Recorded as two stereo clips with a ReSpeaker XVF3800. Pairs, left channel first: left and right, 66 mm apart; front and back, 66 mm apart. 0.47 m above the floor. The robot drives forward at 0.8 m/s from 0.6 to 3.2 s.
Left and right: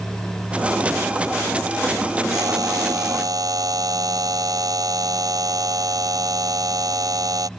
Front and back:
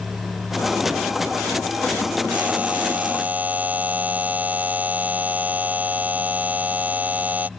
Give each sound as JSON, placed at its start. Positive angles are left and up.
{"t": 2.3, "sound": "a buzzer", "azimuth_deg": -110}